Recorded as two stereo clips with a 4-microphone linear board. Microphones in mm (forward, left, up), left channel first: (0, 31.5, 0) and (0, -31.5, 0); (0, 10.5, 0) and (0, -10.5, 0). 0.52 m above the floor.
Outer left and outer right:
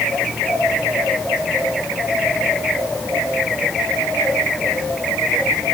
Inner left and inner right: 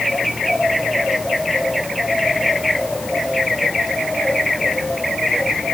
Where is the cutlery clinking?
No cutlery clinking in this recording.